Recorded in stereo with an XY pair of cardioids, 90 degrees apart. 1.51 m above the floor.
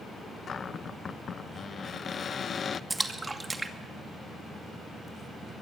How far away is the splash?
About 2 m.